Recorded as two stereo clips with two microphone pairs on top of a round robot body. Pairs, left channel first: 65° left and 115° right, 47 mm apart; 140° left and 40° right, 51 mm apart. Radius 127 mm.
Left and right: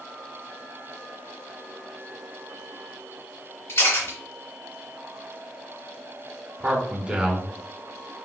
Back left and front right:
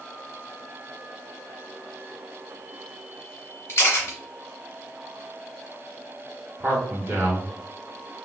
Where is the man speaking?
65° right, 1.7 m.